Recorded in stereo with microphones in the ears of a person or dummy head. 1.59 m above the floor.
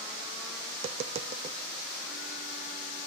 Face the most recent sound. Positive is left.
turn(degrees=-40)  # may be behind; listen again after turning